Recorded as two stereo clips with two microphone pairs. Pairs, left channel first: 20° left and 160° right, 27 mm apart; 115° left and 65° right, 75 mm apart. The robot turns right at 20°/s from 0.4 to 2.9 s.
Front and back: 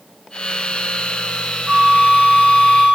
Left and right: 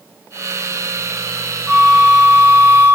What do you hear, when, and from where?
1.7 s a flute: 155° right, 2.5 m; by 3.0 s 130° right, 2.5 m